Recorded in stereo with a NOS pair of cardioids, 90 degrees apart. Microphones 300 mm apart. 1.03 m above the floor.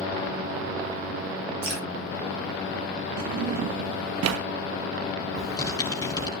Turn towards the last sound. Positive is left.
turn(degrees=15)